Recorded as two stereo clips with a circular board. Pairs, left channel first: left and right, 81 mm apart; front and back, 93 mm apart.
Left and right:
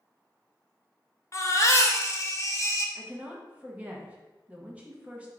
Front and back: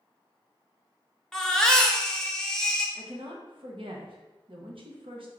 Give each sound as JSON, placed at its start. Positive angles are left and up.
{"t": 1.3, "sound": "a baby crying", "azimuth_deg": 80, "distance_m": 0.6}
{"t": 3.0, "sound": "a woman speaking", "azimuth_deg": -160, "distance_m": 1.0}